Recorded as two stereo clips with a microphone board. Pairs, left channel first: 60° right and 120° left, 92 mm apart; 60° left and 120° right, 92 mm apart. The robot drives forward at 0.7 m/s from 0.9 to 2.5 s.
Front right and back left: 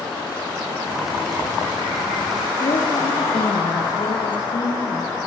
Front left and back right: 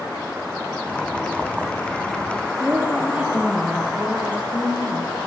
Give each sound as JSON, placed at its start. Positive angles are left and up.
{"t": 2.6, "sound": "a woman speaking", "azimuth_deg": -45, "distance_m": 5.0}